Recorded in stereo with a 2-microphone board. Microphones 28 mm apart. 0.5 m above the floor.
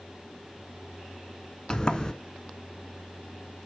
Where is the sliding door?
25° left (ahead or behind), 1.0 m.